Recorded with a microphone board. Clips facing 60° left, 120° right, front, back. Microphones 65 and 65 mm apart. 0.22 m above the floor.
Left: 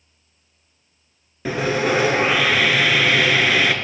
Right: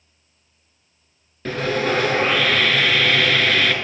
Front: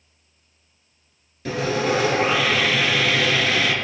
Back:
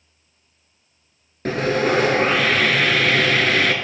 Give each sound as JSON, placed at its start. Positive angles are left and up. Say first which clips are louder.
{"t": 1.4, "sound": "sawing", "louder": "left 1 dB, back 3 dB", "azimuth_deg": 140, "distance_m": 0.8}